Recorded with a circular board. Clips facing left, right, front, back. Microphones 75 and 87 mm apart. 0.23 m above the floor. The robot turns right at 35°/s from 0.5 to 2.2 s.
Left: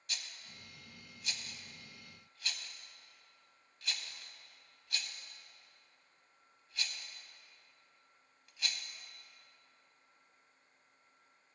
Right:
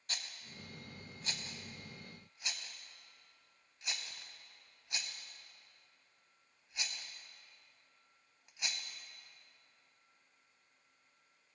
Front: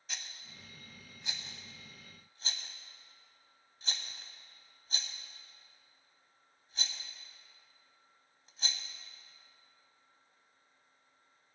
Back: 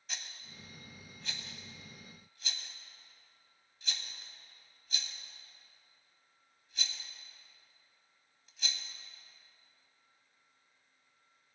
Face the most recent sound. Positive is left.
turn(degrees=-30)